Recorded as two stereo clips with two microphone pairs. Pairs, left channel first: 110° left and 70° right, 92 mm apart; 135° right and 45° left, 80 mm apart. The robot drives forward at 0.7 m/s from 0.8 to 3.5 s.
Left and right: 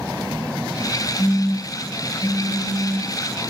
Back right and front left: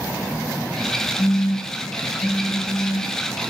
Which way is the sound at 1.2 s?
165° left.